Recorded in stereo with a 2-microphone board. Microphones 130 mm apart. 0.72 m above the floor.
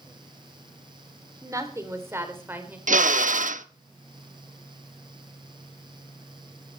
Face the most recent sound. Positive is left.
turn(degrees=-80)